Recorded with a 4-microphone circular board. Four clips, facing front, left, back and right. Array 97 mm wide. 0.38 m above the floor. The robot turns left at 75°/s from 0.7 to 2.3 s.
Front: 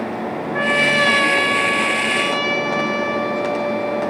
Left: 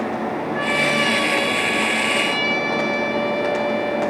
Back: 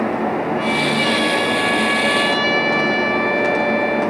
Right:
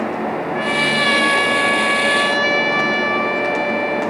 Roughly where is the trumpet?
Ahead.